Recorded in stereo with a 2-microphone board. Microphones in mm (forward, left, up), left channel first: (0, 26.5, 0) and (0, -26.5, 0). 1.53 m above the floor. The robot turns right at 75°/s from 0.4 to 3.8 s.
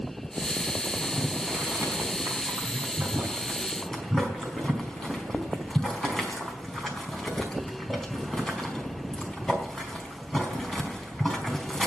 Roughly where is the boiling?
Centre.